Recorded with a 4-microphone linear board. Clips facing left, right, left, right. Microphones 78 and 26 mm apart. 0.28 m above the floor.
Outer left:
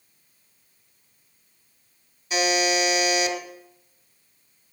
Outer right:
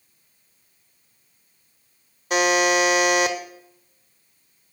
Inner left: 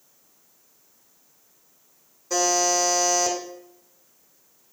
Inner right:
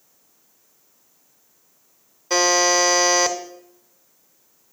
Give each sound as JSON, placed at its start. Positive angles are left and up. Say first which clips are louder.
{"t": 2.3, "sound": "a buzzer", "louder": "outer right 4 dB, inner right 5 dB", "side_deg": -65, "distance_m": 0.8}